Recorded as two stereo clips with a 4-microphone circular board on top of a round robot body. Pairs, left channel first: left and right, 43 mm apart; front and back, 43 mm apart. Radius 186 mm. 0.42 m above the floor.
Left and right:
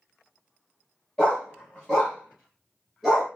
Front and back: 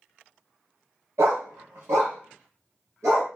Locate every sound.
1.2 s a dog barking: 160° left, 0.6 m; by 3.3 s 175° right, 1.7 m